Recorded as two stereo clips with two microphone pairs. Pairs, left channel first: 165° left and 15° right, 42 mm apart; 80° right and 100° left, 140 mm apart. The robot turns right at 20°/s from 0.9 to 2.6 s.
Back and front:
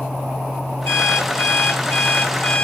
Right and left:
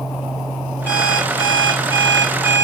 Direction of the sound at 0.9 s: 155° right.